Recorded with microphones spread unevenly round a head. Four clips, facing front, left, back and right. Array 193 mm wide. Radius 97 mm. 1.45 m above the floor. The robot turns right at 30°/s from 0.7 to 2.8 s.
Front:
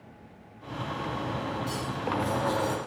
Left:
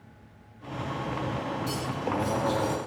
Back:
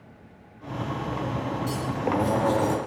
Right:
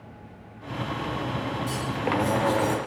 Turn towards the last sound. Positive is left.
turn(degrees=-160)